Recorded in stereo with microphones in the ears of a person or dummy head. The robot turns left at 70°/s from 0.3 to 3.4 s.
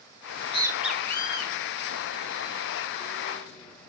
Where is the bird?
50° right (ahead or behind), 1.4 m; by 3.9 s 10° left (ahead or behind), 1.4 m.